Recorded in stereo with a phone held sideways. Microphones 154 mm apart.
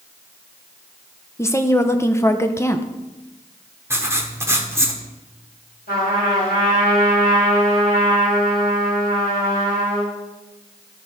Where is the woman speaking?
15° left (ahead or behind), 0.6 m.